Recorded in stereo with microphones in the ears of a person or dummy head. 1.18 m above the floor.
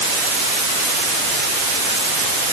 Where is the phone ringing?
I don't hear a phone ringing.